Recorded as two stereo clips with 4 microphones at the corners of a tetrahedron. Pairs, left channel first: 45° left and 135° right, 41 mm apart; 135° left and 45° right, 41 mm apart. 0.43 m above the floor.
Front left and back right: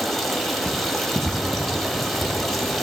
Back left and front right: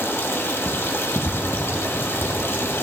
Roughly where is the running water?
Behind left.